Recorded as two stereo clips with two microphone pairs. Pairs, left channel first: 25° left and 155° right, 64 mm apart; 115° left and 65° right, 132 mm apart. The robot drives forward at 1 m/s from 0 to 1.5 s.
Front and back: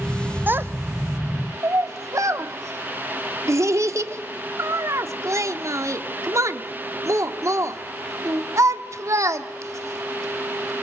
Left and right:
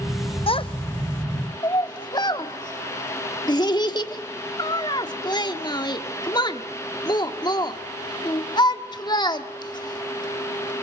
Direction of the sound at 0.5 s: 145° left.